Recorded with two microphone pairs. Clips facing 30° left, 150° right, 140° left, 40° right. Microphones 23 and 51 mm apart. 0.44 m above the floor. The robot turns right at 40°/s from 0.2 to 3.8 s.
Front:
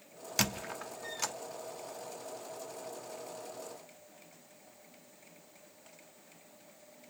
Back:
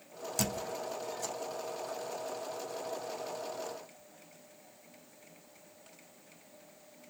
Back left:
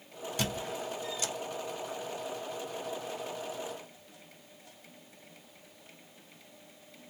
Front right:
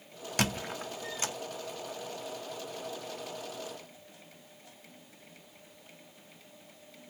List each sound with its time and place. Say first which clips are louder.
0.4 s a squeak: front 2 dB, front right 3 dB; 15° right, 1.0 m; by 1.4 s 20° left, 1.0 m